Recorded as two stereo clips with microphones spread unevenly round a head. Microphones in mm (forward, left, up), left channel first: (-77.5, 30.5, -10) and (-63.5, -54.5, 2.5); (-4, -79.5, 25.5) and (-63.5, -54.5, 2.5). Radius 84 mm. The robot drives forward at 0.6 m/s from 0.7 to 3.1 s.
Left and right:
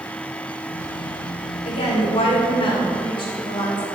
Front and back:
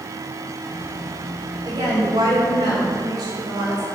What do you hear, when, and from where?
1.6 s a woman speaking: 100° left, 1.8 m; by 3.8 s 125° left, 2 m